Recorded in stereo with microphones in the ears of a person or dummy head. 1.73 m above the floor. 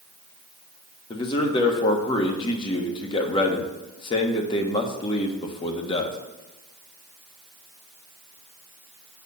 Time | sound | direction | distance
1.1 | a man speaking | 25° left (ahead or behind) | 1.3 m